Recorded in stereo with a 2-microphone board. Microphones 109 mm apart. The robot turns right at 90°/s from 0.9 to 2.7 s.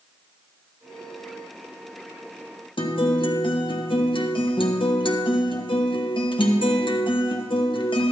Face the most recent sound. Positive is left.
turn(degrees=50)  # may be behind; listen again after turning